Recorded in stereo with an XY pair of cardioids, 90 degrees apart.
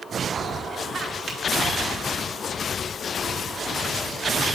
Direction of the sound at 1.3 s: 55° right.